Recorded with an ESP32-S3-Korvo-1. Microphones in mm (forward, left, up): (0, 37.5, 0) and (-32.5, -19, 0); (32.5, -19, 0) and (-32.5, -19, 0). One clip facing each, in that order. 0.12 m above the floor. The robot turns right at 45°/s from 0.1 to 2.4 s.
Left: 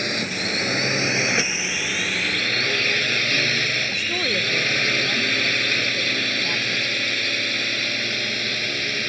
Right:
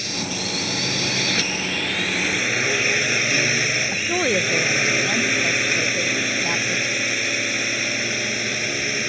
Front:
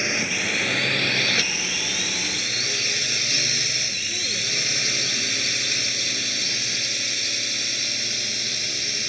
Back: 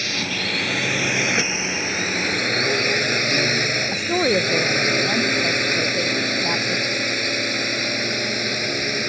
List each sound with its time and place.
0.0 s a drone: 60° left; by 9.1 s 165° left
3.9 s a woman speaking: 175° left